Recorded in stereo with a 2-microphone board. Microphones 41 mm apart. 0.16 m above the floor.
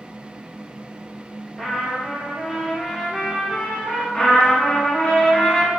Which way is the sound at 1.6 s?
Centre (ahead or behind).